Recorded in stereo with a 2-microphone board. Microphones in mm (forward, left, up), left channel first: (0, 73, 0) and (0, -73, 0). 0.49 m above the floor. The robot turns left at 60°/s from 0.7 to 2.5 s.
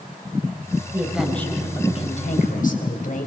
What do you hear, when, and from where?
0.9 s a woman speaking: 160° right, 3.5 m; by 3.3 s 105° left, 3.5 m